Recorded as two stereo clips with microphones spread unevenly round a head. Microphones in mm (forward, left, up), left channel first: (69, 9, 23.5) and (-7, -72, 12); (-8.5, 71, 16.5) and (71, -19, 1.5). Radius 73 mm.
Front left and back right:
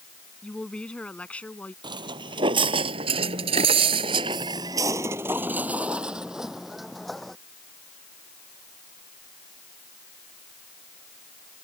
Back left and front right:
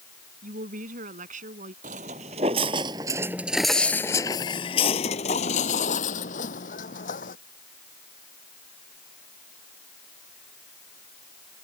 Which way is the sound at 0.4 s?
35° right.